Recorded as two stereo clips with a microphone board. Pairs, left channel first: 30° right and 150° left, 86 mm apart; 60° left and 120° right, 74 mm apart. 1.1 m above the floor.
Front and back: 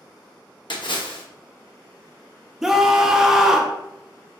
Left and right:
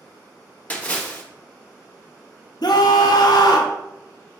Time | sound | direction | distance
0.7 | a splash | 10° right | 0.8 m
2.6 | a scream | 65° left | 0.5 m